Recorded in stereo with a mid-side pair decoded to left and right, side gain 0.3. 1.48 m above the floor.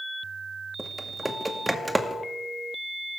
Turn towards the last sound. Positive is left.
turn(degrees=-15)